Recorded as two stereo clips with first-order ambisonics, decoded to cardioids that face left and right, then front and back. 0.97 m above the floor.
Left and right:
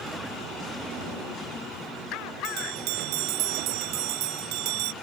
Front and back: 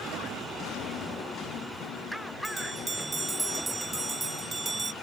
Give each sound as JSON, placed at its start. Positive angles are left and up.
{"t": 2.4, "sound": "a bell", "azimuth_deg": -100}